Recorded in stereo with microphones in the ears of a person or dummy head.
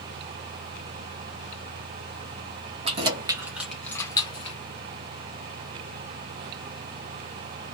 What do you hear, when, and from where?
2.9 s keys jangling: 35° right (ahead or behind), 1.0 m; by 4.6 s 35° left (ahead or behind), 1.0 m